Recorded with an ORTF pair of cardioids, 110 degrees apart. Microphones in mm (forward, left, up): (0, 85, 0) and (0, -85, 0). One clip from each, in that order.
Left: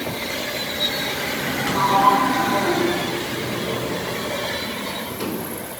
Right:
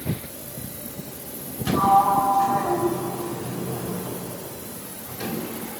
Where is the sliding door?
40° left, 3.5 m.